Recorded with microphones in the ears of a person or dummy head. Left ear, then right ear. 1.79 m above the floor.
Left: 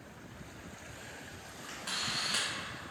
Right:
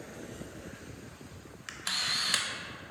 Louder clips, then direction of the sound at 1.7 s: Right 5 dB; 35° right (ahead or behind).